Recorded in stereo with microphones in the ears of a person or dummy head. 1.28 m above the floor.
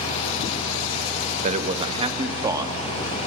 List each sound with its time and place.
1.4 s a man speaking: 45° right (ahead or behind), 1.0 m; by 3.2 s 15° right (ahead or behind), 2 m